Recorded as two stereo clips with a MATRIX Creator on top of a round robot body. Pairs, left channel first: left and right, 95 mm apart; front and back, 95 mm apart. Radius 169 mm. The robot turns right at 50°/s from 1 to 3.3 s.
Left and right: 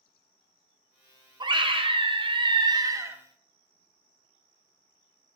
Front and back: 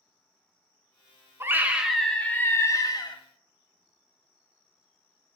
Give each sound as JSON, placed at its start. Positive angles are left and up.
{"t": 1.4, "sound": "a scream", "azimuth_deg": -120, "distance_m": 1.4}